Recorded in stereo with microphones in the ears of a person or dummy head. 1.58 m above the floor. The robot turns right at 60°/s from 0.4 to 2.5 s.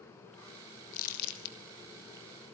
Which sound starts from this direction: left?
Crumpling, at 0.9 s.